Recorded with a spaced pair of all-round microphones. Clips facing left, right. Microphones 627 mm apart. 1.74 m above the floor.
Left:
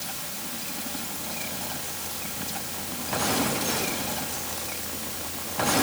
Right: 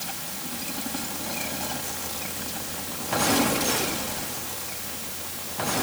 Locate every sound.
Only background noise.